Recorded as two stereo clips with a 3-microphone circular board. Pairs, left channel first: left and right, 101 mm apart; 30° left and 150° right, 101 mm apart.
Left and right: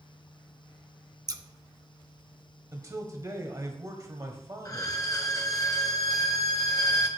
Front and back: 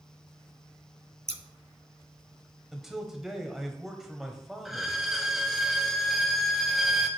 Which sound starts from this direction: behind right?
Scissors, at 1.3 s.